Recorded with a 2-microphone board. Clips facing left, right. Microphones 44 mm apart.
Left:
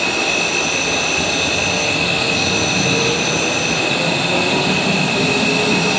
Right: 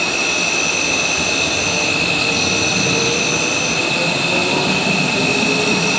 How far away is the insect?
About 5 m.